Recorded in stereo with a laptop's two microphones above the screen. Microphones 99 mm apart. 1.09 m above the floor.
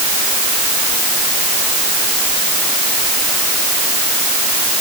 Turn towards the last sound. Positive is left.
No sound to turn to.